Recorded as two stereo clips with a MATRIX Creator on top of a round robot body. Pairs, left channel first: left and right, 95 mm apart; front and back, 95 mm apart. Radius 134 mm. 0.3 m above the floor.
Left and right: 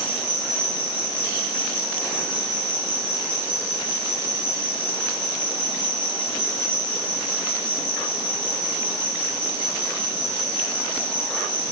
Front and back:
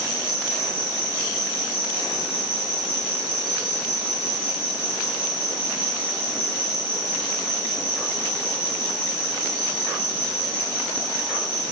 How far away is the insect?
About 5 m.